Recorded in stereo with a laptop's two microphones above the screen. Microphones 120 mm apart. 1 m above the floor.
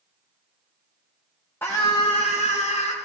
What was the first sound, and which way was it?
A scream, 20° left (ahead or behind).